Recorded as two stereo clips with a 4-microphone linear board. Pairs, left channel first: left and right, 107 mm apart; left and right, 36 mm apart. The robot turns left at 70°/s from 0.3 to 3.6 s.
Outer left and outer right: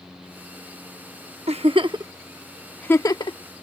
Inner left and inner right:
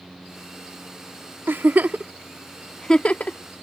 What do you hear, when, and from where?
1.5 s a giggle: 75° right (ahead or behind); by 3.4 s 55° left (ahead or behind)